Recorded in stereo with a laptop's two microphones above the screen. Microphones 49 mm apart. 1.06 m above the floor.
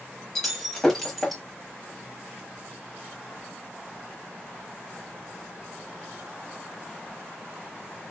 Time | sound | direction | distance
0.3 | breaking glass | 5° left (ahead or behind) | 1.0 m